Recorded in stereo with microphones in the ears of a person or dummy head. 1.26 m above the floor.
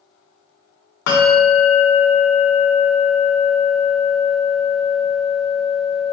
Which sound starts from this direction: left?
A bell, at 1.1 s.